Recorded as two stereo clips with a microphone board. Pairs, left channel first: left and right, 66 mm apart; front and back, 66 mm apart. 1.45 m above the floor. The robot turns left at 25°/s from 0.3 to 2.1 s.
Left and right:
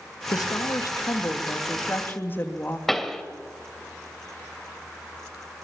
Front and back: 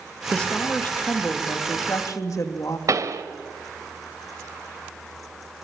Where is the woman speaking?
75° left, 2.5 m; by 2.8 s 30° left, 2.5 m.